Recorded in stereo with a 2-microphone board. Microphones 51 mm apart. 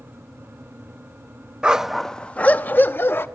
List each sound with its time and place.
1.6 s a dog barking: 20° right (ahead or behind), 0.5 m; by 3.3 s 50° left (ahead or behind), 1.0 m